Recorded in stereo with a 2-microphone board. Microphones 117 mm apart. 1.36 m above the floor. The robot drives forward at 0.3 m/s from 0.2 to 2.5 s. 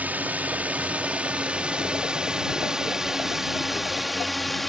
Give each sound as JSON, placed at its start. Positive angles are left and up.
{"t": 0.0, "sound": "a drone", "side_deg": -15}